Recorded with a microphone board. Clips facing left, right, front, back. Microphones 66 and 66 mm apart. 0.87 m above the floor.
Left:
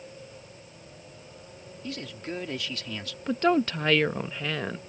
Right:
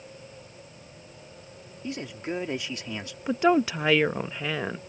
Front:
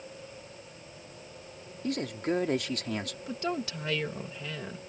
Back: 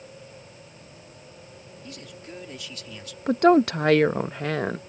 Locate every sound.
1.8 s a man speaking: 20° right
3.3 s a woman speaking: 165° right